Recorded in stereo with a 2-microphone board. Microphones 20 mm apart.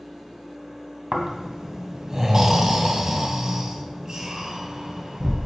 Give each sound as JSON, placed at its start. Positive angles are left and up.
{"t": 1.1, "sound": "snoring", "side_deg": -30, "distance_m": 1.1}